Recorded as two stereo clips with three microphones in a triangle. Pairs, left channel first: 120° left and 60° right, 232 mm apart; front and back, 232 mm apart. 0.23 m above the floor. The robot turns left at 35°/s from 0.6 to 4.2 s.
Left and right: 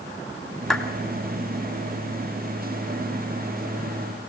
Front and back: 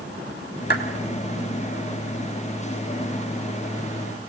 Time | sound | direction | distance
0.7 | a clap | 30° left | 2.5 m